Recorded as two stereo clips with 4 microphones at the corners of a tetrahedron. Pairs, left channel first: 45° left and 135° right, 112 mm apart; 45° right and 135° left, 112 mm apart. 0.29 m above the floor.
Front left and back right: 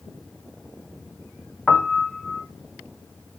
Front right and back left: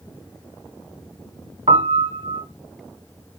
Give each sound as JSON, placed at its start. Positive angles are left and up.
{"t": 1.7, "sound": "a piano", "azimuth_deg": 125, "distance_m": 0.5}